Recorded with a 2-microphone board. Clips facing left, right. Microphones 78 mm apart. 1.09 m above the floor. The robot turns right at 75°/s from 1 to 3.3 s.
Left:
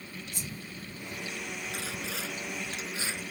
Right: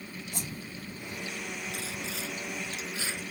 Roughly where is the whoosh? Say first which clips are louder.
Right 3 dB; right.